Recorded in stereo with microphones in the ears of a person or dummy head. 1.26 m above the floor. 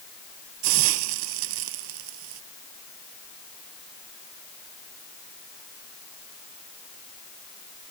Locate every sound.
0.6 s a hiss: 75° right (ahead or behind)